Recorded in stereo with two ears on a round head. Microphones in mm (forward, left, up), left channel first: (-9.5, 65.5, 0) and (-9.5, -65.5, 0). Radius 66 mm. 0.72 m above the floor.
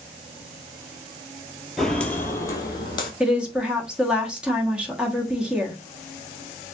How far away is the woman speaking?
About 1.1 m.